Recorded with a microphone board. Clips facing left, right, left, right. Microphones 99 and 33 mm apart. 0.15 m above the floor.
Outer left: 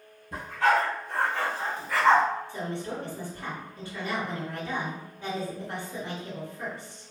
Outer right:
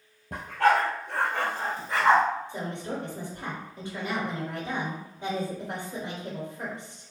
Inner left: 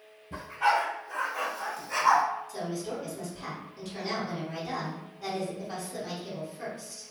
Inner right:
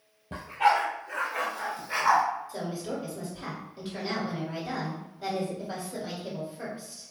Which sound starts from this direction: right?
A dog barking, at 0.3 s.